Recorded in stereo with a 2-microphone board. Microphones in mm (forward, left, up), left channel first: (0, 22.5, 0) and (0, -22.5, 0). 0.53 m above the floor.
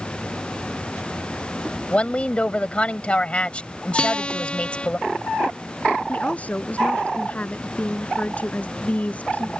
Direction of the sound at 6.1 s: 30° left (ahead or behind).